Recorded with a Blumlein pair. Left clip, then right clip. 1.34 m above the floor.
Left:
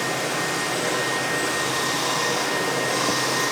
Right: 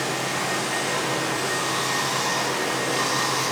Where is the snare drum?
No snare drum in this recording.